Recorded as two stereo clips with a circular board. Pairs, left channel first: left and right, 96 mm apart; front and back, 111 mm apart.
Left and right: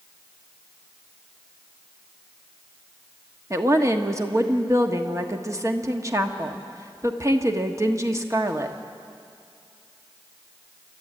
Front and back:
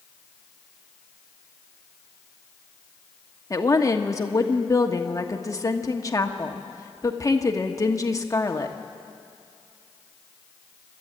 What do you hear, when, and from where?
3.5 s a woman speaking: 45° right, 1.4 m